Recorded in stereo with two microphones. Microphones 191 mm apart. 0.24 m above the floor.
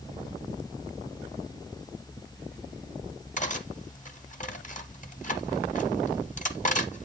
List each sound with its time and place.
3.4 s cutlery clinking: 40° left (ahead or behind), 0.8 m